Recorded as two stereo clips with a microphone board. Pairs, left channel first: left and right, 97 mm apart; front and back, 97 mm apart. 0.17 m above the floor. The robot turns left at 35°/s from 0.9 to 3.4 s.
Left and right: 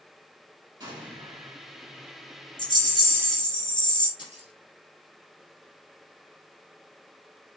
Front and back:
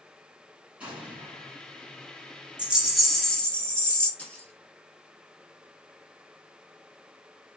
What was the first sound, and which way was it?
An explosion, 110° right.